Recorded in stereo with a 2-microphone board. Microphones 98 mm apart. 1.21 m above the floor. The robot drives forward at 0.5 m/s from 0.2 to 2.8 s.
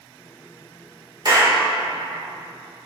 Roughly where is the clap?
Right.